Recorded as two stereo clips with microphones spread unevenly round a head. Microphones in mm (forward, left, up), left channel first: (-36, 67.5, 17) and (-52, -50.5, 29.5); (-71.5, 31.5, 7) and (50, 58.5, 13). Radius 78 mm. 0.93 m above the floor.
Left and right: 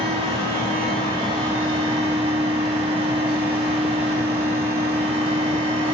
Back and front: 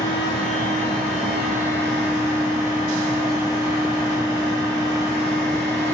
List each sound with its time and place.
0.0 s a fan: 85° right, 0.9 m